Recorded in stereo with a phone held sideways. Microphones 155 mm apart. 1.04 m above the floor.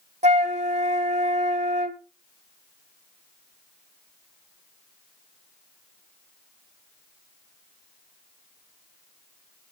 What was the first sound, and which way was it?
A flute, 50° right (ahead or behind).